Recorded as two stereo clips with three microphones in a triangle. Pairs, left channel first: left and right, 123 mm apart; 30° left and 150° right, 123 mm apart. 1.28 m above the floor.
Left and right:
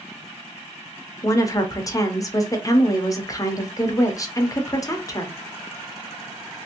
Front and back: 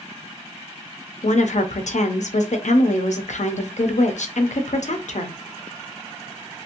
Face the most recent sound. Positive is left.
turn(degrees=30)